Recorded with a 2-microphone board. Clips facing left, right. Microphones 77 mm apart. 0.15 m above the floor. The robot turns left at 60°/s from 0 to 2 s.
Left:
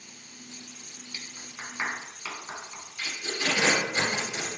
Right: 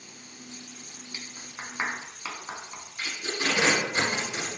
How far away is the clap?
About 1.0 m.